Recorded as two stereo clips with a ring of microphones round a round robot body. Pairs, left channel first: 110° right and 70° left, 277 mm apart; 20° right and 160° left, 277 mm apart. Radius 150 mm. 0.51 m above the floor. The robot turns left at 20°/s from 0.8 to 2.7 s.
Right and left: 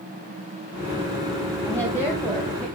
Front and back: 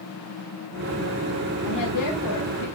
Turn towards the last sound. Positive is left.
turn(degrees=-30)